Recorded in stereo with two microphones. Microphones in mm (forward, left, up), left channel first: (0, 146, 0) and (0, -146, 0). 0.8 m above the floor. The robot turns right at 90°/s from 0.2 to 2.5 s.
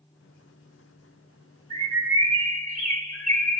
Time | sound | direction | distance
1.7 | a bird | 165° right | 2 m